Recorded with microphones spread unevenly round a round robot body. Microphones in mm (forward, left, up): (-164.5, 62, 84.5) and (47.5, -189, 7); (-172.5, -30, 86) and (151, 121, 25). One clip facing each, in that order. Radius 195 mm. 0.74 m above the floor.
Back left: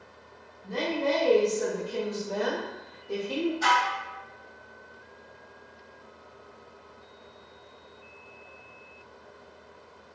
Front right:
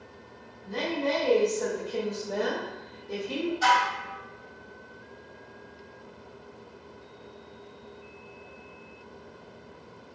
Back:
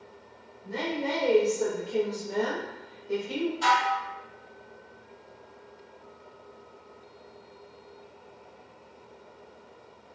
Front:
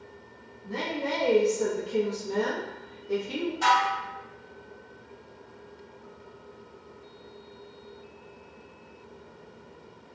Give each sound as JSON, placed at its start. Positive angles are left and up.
{"t": 0.6, "sound": "a woman speaking", "azimuth_deg": 120, "distance_m": 1.0}
{"t": 3.6, "sound": "dishes clattering", "azimuth_deg": -5, "distance_m": 1.2}